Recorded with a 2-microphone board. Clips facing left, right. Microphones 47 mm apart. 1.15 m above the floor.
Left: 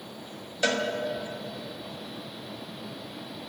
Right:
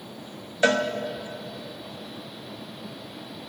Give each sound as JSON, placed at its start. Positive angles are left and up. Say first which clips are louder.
{"t": 0.6, "sound": "a cowbell", "louder": "right 5 dB", "side_deg": -20, "distance_m": 1.2}